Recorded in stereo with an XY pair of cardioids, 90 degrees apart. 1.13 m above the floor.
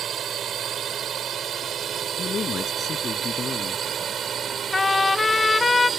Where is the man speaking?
50° left.